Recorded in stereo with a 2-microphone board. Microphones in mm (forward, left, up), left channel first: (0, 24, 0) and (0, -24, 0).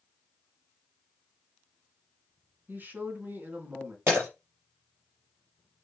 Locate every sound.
2.7 s a man speaking: 40° right (ahead or behind), 2.5 m
4.1 s breaking glass: 55° right (ahead or behind), 3.5 m